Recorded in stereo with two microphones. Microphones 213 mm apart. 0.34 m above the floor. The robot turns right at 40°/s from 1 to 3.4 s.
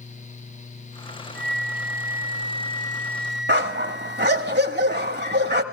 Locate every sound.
1.4 s a flute: 100° left, 0.6 m; by 4.5 s 175° right, 0.6 m
3.5 s a dog barking: 55° right (ahead or behind), 1.0 m